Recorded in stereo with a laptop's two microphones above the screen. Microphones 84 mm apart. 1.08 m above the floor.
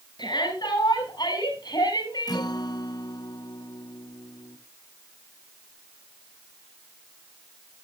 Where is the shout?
60° left (ahead or behind), 7 m; by 2.5 s 50° left (ahead or behind), 7.5 m.